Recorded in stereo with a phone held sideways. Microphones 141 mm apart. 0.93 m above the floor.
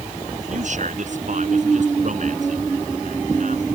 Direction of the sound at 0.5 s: 60° right (ahead or behind).